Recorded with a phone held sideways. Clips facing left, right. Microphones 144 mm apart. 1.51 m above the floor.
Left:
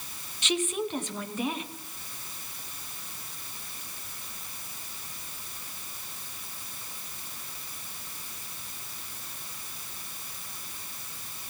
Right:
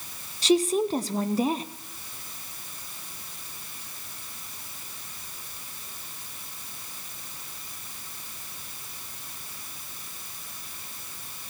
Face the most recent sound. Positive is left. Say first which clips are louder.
# right 8 dB
turn(degrees=-35)  # may be behind; listen again after turning